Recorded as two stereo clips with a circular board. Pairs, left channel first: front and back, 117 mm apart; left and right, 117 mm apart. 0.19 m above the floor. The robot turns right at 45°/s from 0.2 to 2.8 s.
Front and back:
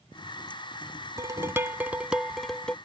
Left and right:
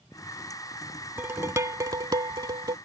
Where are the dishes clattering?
145° right; by 2.8 s 75° right.